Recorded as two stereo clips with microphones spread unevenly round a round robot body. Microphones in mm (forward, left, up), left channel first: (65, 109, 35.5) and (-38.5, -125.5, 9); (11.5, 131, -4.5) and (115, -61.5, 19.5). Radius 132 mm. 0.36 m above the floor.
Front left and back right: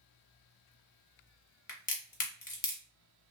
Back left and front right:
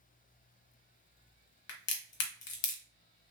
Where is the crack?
130° left, 0.7 m.